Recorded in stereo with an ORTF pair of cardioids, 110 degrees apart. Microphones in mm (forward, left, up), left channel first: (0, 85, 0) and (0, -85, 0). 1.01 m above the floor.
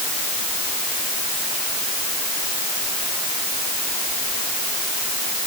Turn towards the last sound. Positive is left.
No sound to turn to.